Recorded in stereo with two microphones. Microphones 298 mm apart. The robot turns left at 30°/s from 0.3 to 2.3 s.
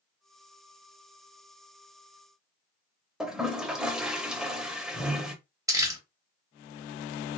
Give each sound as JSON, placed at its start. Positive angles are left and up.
{"t": 3.2, "sound": "a toilet flushing", "side_deg": 0, "distance_m": 0.6}
{"t": 5.7, "sound": "crumpling", "side_deg": -10, "distance_m": 0.9}